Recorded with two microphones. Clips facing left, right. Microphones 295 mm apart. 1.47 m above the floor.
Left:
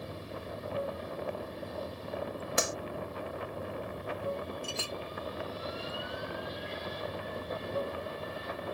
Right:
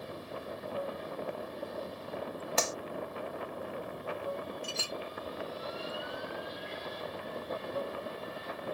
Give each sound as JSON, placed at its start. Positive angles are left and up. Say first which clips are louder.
{"t": 0.0, "sound": "running water", "louder": "even", "side_deg": 30}
{"t": 2.6, "sound": "a clap", "louder": "left 1 dB", "side_deg": 15}
{"t": 4.6, "sound": "a clink", "louder": "left 1 dB", "side_deg": 60}